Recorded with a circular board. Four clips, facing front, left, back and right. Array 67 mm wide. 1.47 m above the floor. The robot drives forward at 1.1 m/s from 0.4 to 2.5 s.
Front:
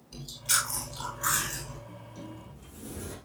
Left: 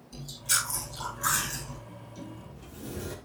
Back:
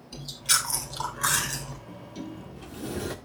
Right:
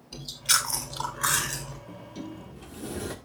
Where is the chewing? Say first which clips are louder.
Right 4 dB, back 2 dB; 110° right, 2.5 m; by 1.8 s 135° right, 3.5 m.